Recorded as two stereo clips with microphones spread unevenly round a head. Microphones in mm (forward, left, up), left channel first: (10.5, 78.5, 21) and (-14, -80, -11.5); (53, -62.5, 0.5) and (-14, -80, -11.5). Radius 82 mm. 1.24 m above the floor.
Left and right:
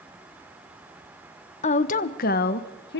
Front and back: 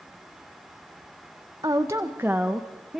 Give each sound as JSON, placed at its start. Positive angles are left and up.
{"t": 1.6, "sound": "a woman speaking", "azimuth_deg": 135, "distance_m": 1.0}